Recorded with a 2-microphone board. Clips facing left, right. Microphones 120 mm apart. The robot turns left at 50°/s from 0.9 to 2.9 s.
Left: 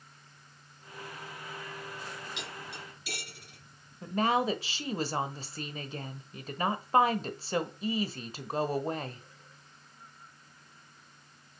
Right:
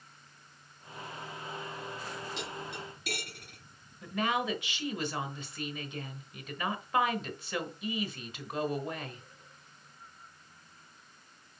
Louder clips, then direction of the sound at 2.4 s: Right 3 dB; 40° right (ahead or behind).